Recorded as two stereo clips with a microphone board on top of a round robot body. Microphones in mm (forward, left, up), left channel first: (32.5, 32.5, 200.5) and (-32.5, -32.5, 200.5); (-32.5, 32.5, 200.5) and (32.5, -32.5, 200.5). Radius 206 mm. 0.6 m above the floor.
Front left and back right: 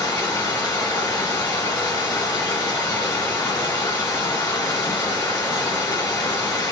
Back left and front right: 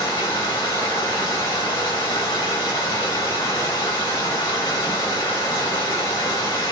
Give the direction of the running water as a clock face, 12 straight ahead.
9 o'clock.